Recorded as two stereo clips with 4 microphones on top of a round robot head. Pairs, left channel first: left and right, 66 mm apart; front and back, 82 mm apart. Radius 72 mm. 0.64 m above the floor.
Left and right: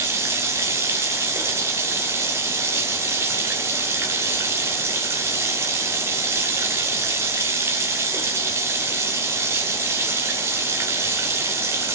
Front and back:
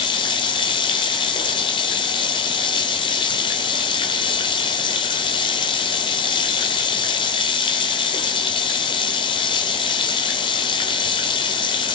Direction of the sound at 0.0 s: 35° right.